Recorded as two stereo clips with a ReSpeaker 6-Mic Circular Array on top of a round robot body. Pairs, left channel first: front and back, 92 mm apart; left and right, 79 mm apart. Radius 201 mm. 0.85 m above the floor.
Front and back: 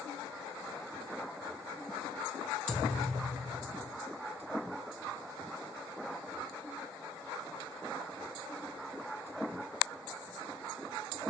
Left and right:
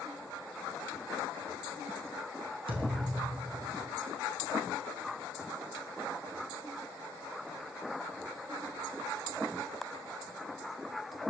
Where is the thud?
85° right, 4.5 m.